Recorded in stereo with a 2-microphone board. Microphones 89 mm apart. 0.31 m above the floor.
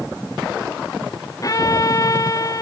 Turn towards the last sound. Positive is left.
turn(degrees=40)  # may be behind; listen again after turning